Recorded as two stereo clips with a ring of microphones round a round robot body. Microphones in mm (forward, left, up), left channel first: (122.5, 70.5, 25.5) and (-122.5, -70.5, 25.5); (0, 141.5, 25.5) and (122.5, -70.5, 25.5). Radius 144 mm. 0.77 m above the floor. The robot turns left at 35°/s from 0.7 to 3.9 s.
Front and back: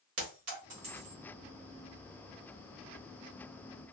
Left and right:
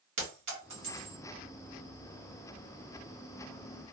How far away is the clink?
About 1.7 m.